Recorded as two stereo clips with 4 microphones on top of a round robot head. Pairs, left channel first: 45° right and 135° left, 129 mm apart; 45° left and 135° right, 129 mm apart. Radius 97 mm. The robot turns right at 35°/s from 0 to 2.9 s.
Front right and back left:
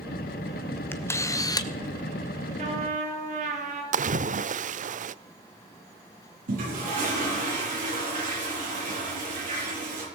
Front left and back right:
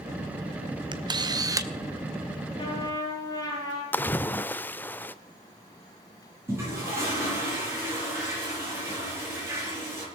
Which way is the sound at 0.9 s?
110° right.